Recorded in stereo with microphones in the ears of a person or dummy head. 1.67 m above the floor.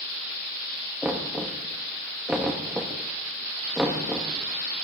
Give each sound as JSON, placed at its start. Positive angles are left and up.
{"t": 1.0, "sound": "knocking", "side_deg": 0, "distance_m": 1.7}